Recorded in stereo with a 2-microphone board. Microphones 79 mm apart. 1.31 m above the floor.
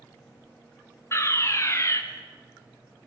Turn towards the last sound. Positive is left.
turn(degrees=35)  # may be behind; listen again after turning